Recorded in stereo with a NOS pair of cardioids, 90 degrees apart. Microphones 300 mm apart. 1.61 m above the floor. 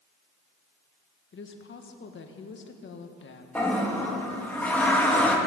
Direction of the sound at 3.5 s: 5° left.